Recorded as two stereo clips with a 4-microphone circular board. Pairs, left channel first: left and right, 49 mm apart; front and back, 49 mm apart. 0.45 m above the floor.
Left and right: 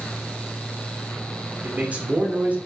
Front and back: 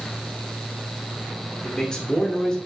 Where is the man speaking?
60° right, 1.1 m.